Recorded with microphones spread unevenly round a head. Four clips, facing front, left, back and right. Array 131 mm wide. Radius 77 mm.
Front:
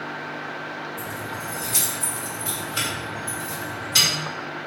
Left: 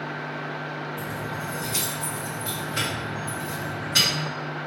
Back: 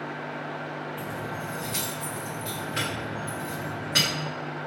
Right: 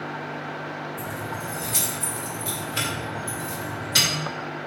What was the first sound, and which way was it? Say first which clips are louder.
Keys jangling: even, front 1 dB; 135° left.